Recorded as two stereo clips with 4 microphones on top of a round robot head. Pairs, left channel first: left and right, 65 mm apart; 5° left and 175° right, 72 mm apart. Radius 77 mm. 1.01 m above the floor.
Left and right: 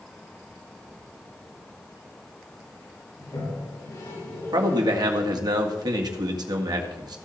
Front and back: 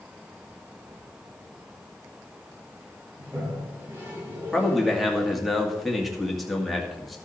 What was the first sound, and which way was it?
A toilet flushing, 125° left.